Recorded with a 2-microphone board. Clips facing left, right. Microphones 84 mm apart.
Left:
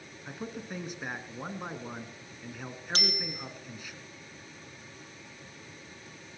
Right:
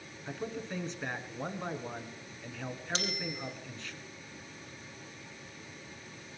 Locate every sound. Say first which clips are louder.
0.3 s a man speaking: right 1 dB; 10° left (ahead or behind), 2.0 m
3.0 s a bicycle bell: left 3 dB; 50° left (ahead or behind), 4 m